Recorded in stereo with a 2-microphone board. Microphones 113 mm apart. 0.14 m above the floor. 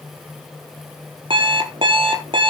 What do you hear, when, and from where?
1.3 s an alarm clock: 50° right (ahead or behind), 1.6 m